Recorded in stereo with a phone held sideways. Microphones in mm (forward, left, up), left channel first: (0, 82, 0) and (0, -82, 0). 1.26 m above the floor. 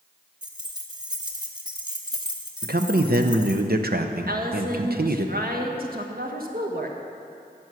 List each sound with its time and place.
0.4 s keys jangling: 25° right (ahead or behind), 1.1 m
2.6 s a man speaking: 70° right (ahead or behind), 0.8 m
4.3 s a woman speaking: 65° right (ahead or behind), 1.4 m